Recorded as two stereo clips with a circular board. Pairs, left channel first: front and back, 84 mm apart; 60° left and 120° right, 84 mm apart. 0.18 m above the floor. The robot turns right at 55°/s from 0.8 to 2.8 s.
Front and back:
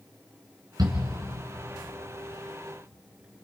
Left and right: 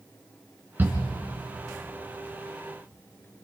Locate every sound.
0.8 s a shout: straight behind, 2.5 m; by 1.0 s 170° right, 2.5 m